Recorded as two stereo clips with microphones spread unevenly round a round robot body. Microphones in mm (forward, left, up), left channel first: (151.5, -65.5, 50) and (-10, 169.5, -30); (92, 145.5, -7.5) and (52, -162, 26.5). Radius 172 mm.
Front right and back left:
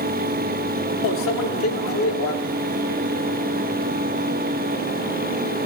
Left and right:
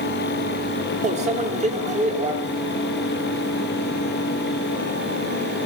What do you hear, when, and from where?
1.0 s a microwave: 40° right, 0.9 m